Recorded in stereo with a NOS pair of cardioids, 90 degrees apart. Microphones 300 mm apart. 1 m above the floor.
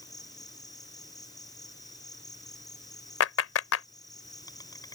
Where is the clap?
55° left.